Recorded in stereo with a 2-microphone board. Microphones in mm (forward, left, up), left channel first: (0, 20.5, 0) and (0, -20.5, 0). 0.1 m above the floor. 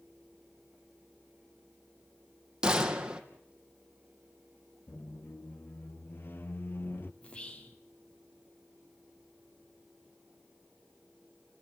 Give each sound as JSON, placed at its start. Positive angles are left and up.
{"t": 2.6, "sound": "a gunshot", "side_deg": -20, "distance_m": 2.5}
{"t": 4.9, "sound": "a squeak", "side_deg": 60, "distance_m": 1.0}
{"t": 7.2, "sound": "whispering", "side_deg": 30, "distance_m": 3.5}